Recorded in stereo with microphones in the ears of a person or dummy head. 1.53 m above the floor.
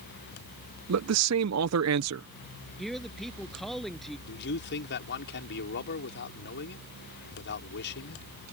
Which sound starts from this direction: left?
A man speaking, at 4.3 s.